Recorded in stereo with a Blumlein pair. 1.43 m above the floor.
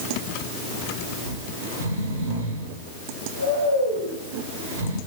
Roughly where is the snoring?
Ahead right.